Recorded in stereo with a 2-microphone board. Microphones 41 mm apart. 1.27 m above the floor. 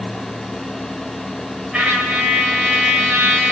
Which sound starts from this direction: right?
A trumpet, at 1.7 s.